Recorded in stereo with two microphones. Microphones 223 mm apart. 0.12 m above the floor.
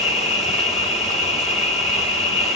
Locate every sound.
0.0 s an insect: 30° left (ahead or behind), 1.0 m